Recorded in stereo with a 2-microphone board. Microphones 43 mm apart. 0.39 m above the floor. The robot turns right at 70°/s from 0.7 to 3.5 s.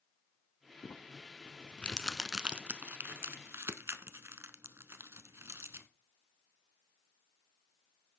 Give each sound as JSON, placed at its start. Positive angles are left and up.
{"t": 0.8, "sound": "crumpling", "side_deg": 80, "distance_m": 0.7}